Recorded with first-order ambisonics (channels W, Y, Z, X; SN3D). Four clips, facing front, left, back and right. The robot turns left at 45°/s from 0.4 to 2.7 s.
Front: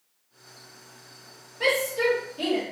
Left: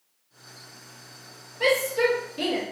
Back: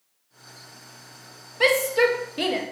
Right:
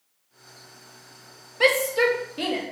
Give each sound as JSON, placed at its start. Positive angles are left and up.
{"t": 1.6, "sound": "a shout", "azimuth_deg": -135, "distance_m": 0.6}